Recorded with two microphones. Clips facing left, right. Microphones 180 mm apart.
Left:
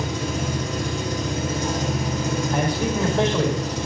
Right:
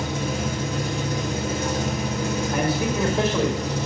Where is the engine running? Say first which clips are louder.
Even; 65° right (ahead or behind), 7 m.